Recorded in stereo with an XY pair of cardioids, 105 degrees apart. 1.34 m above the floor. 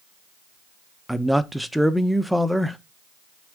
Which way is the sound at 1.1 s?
Straight ahead.